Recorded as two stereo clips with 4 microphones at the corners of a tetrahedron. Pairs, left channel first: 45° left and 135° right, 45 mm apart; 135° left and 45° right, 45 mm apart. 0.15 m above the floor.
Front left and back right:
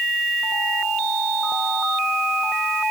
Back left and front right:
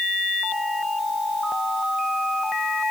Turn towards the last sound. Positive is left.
No sound to turn to.